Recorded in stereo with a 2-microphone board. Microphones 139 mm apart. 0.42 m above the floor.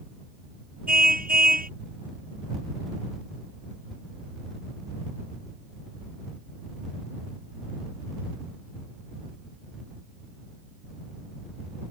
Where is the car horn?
80° right.